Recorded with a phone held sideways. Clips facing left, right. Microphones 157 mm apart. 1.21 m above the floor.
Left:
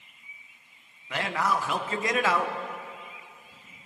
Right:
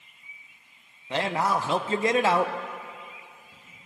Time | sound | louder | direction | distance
1.1 | a man speaking | right 2 dB | 30° right (ahead or behind) | 0.5 m